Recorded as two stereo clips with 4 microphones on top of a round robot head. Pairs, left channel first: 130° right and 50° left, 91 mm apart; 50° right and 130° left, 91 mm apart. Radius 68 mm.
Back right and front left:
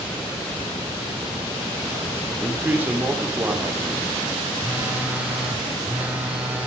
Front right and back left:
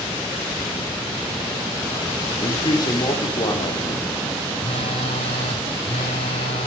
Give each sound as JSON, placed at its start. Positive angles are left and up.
{"t": 2.4, "sound": "a man speaking", "azimuth_deg": -15, "distance_m": 1.8}
{"t": 4.6, "sound": "a phone buzzing", "azimuth_deg": -25, "distance_m": 0.9}